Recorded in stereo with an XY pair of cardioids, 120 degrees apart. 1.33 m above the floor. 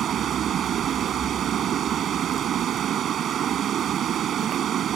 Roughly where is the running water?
Ahead right.